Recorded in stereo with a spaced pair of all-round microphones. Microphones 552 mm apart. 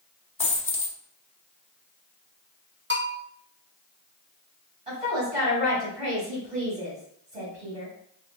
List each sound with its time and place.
0.4 s a dropped coin: 45° left (ahead or behind), 1.2 m
2.9 s a bell: 20° right (ahead or behind), 0.7 m
4.9 s a woman speaking: 80° right, 2.5 m